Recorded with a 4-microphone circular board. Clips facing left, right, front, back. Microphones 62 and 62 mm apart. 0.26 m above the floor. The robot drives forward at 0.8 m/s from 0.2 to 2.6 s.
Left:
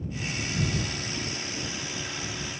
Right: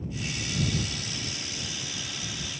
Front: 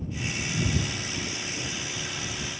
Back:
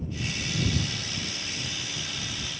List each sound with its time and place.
Only background noise.